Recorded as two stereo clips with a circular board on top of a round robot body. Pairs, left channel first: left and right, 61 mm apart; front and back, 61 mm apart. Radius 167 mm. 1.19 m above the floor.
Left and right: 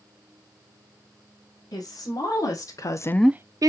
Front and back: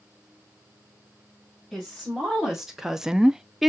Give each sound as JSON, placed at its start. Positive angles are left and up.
{"t": 1.7, "sound": "a woman speaking", "azimuth_deg": 95, "distance_m": 2.5}